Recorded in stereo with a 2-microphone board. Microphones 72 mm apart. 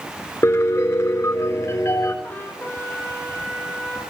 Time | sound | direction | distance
0.4 | a piano | 45° left (ahead or behind) | 4 m
2.2 | a trumpet | 20° left (ahead or behind) | 3.5 m